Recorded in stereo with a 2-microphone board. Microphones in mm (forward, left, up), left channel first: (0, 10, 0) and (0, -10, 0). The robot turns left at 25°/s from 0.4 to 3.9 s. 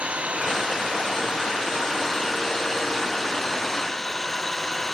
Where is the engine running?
110° right; by 4.9 s 165° left.